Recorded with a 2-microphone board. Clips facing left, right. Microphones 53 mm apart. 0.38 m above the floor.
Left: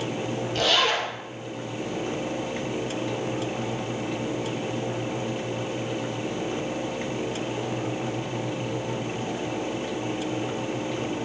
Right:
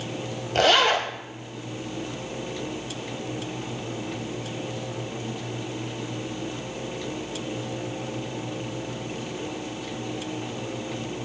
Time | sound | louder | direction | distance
0.6 | a zipper | right 4 dB | 55° right (ahead or behind) | 0.7 m